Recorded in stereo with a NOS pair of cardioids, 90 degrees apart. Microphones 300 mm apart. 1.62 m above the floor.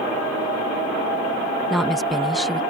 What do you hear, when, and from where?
1.7 s a woman speaking: straight ahead